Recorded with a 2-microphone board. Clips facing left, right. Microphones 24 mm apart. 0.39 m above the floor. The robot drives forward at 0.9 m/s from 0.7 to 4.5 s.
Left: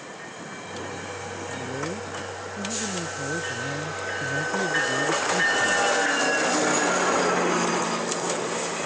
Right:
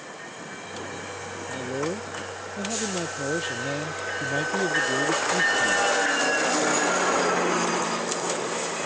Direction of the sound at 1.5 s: 80° right.